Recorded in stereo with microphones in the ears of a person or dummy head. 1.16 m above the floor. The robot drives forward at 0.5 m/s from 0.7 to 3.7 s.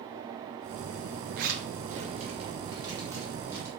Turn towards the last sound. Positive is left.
turn(degrees=-15)  # may be behind; listen again after turning